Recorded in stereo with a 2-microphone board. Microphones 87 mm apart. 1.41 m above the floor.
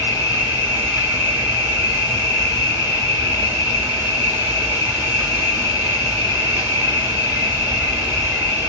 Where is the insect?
25° right (ahead or behind), 1.5 m.